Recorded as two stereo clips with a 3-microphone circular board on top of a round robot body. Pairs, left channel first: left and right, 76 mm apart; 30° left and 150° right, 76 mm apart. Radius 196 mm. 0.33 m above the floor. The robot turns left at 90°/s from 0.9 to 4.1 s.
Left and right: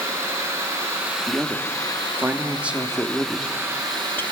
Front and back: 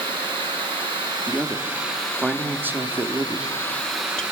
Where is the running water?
145° right, 5.5 m; by 4.3 s 70° right, 5.5 m.